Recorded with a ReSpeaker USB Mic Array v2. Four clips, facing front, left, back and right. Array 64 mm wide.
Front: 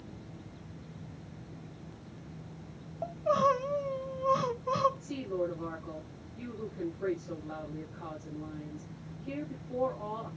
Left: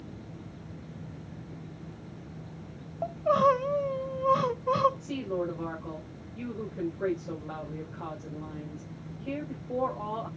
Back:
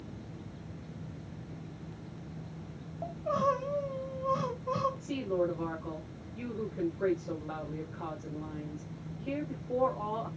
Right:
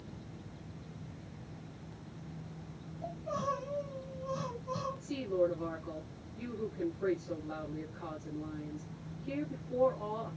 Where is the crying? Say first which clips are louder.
Left 13 dB, front 3 dB; 75° left, 0.8 m.